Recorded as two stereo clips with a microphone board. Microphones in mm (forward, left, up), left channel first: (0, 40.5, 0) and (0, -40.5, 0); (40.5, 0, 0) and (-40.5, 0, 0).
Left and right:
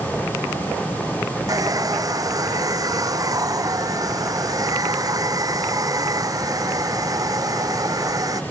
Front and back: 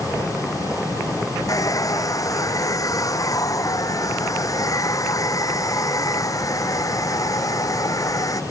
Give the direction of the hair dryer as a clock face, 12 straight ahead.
2 o'clock.